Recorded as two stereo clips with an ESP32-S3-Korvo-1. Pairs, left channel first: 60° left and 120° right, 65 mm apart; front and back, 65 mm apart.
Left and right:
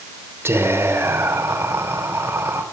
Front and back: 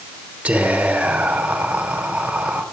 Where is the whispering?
125° right, 1.0 m.